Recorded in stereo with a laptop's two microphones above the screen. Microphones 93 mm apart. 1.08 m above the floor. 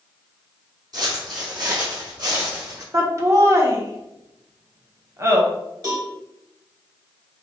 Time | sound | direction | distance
0.9 | footsteps | 45° right (ahead or behind) | 1.6 m
2.9 | laughter | 35° right (ahead or behind) | 0.6 m
5.8 | a cowbell | 50° right (ahead or behind) | 1.7 m